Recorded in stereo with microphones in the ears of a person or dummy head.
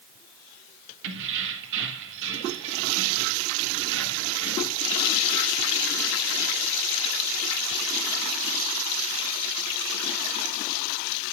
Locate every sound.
1.0 s keys jangling: 65° right (ahead or behind), 1.5 m